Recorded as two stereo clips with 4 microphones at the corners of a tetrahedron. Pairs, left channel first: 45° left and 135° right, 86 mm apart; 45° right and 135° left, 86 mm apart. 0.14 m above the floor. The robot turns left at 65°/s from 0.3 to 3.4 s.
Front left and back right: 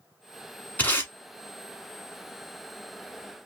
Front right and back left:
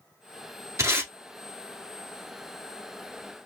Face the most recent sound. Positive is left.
turn(degrees=-60)